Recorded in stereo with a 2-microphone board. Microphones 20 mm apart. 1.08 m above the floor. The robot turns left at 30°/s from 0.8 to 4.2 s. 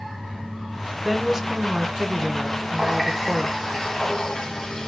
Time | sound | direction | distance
1.1 | a woman speaking | 15° right | 0.6 m
2.8 | a running tap | 175° right | 0.9 m